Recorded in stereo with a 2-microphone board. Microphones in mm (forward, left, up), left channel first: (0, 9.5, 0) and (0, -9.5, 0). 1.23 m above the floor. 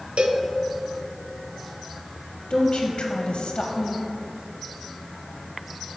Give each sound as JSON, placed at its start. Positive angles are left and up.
{"t": 0.2, "sound": "a cowbell", "side_deg": -75, "distance_m": 0.5}
{"t": 2.5, "sound": "a woman speaking", "side_deg": 55, "distance_m": 0.8}